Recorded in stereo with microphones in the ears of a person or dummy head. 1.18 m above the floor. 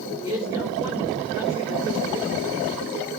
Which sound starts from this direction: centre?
A man speaking, at 0.2 s.